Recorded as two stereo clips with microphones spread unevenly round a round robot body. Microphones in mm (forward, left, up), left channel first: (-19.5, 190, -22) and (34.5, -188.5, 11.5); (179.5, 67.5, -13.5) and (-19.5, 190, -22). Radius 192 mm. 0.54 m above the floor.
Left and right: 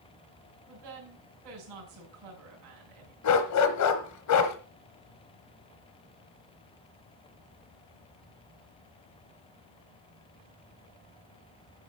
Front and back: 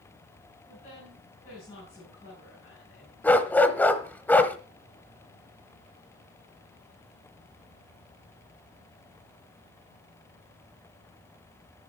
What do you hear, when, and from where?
0.7 s a woman speaking: 100° right, 4.5 m
3.2 s a dog barking: 50° left, 1.4 m